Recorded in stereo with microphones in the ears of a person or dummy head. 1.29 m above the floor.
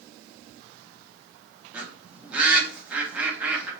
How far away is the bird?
About 0.7 m.